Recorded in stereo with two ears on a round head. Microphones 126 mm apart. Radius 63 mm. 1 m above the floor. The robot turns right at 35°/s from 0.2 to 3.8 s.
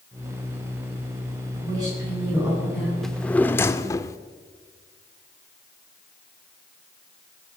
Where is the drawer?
Centre (ahead or behind), 0.7 m; by 4.2 s 20° left (ahead or behind), 0.7 m.